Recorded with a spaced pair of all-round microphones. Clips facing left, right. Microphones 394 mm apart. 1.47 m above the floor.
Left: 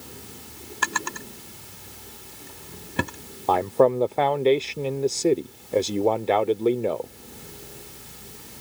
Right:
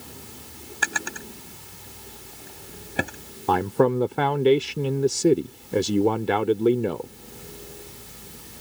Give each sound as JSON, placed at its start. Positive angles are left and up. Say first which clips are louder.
{"t": 0.8, "sound": "a drawer", "louder": "left 1 dB", "side_deg": 10}
{"t": 3.5, "sound": "a man speaking", "louder": "left 1 dB", "side_deg": -25}